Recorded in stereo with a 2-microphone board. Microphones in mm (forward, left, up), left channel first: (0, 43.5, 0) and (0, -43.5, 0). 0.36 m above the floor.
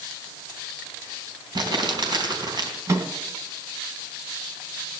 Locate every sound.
1.6 s crumpling: 55° right (ahead or behind), 3.5 m
2.9 s a microwave: 35° right (ahead or behind), 2 m